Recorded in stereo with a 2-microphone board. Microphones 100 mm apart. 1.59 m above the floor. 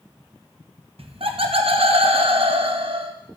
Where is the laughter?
70° right (ahead or behind), 1.1 m.